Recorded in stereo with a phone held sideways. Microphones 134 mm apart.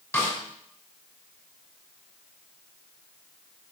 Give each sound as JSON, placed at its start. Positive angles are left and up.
{"t": 0.1, "sound": "a snare drum", "side_deg": 20, "distance_m": 5.0}